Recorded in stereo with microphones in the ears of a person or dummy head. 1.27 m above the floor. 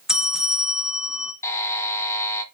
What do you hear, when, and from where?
0.1 s a bell: 5° right (ahead or behind), 0.5 m
1.4 s a buzzer: 15° left (ahead or behind), 1.3 m